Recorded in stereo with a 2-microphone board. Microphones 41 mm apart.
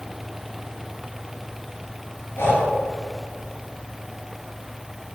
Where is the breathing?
75° left (ahead or behind), 4.5 m.